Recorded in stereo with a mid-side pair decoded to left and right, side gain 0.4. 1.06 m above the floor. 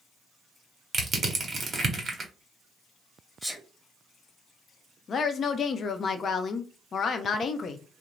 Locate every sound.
0.9 s crushing: 50° right, 1.1 m
3.4 s a sneeze: 5° left, 1.2 m
5.1 s a woman speaking: 55° left, 0.6 m